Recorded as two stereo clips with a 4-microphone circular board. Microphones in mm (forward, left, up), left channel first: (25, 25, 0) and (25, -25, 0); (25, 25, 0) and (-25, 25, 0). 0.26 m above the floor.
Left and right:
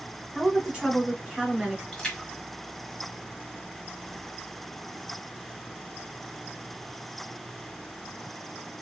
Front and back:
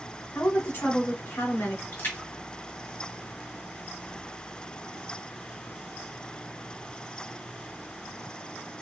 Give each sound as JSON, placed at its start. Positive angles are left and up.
{"t": 0.3, "sound": "a woman speaking", "azimuth_deg": -25, "distance_m": 1.6}
{"t": 1.9, "sound": "a splash", "azimuth_deg": 15, "distance_m": 1.3}